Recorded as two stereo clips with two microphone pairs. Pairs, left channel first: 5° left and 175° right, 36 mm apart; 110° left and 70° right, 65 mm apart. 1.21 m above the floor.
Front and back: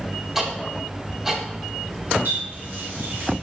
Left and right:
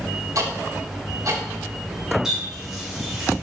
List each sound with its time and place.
0.3 s ticking: 95° right, 2.5 m
2.2 s a running tap: 155° right, 2.5 m